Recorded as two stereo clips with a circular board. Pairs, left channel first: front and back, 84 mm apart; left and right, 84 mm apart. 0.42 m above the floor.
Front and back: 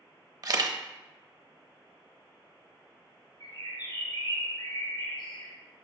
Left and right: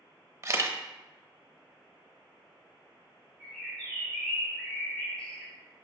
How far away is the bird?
About 3 m.